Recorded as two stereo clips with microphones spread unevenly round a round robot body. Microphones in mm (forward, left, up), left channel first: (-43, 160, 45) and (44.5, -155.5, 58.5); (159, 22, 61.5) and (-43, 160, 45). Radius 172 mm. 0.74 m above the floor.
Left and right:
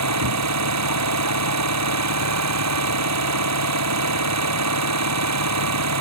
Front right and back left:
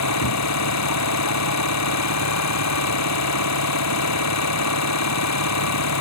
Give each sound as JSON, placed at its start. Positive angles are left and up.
{"t": 0.0, "sound": "an engine running", "azimuth_deg": -30}